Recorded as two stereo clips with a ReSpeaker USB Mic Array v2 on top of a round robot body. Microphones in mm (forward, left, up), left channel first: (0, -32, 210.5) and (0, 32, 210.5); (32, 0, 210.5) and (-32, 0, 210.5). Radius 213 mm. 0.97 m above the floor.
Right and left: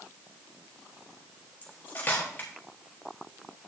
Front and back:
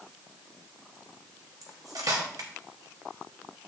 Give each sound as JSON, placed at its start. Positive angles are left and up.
{"t": 1.6, "sound": "cutlery clinking", "azimuth_deg": -155, "distance_m": 1.2}